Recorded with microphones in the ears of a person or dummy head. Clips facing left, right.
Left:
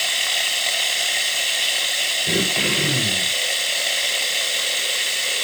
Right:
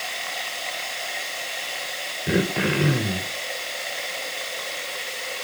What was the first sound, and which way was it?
Running water, 35° left (ahead or behind).